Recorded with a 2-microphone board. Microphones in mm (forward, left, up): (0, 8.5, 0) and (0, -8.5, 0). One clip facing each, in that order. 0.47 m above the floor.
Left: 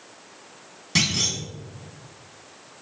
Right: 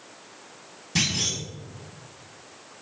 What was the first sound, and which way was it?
A clunk, 40° left (ahead or behind).